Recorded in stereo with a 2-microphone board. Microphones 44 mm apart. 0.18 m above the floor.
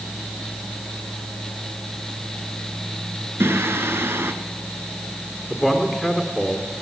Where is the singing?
60° right (ahead or behind), 1.5 m.